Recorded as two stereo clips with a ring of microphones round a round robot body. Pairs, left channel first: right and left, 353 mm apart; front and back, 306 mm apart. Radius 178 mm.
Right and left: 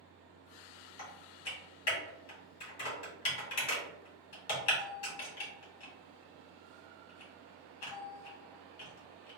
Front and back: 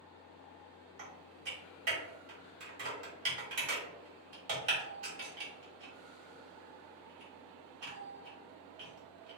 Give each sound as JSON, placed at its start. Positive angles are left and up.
{"t": 1.0, "sound": "typing on a keyboard", "azimuth_deg": -135, "distance_m": 1.2}